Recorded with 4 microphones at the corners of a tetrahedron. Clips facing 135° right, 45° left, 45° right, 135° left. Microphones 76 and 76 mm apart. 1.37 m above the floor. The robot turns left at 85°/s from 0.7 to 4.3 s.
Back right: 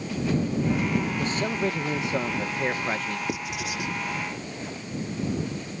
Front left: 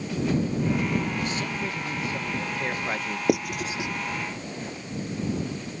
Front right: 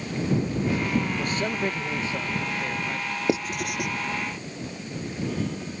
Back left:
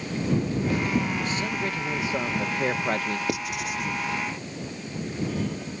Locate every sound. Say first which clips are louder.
1.2 s a man speaking: back right 3 dB, front right 1 dB; 75° right; by 3.2 s 115° left
3.3 s writing: front left 6 dB, front right 3 dB; 20° left; by 3.9 s 35° right